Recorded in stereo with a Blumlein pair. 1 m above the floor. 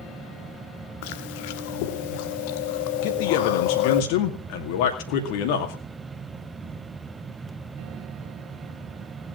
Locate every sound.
0.0 s a fan: 15° right, 1.0 m
1.0 s chewing: 50° left, 1.1 m
3.0 s a man speaking: 45° left, 2.5 m